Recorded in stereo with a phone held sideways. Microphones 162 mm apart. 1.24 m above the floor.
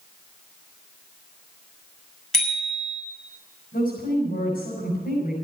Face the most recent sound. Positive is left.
turn(degrees=75)  # may be behind; listen again after turning